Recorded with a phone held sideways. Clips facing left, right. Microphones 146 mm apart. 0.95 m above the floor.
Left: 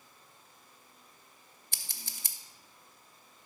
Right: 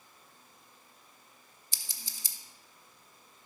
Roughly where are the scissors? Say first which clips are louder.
Left 2 dB; left.